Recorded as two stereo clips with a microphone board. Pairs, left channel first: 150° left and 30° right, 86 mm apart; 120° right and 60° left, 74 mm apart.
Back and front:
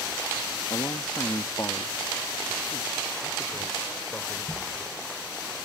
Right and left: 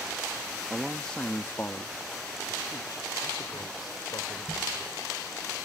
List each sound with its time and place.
0.7 s a man speaking: 140° left; by 4.9 s 140° right